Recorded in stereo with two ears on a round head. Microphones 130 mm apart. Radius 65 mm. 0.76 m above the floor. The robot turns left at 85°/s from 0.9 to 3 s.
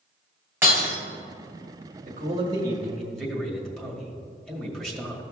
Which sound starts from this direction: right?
A man speaking, at 2.0 s.